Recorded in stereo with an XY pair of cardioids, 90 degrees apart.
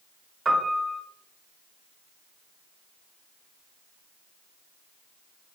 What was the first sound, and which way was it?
A piano, 40° right.